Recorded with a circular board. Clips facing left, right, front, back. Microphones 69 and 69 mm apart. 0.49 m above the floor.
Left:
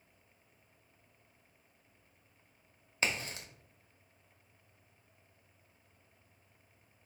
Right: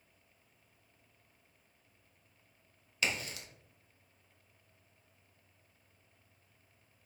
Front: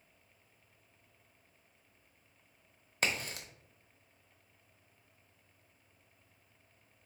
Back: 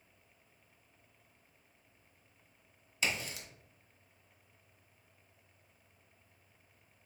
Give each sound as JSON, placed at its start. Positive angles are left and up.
{"t": 3.0, "sound": "a crack", "azimuth_deg": 35, "distance_m": 0.8}